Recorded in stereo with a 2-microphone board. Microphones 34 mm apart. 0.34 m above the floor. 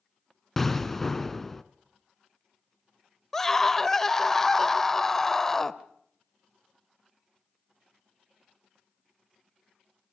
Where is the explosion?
10° left (ahead or behind), 1.2 m.